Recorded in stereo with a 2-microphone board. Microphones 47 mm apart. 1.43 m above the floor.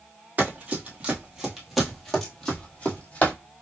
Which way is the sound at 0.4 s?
35° right (ahead or behind).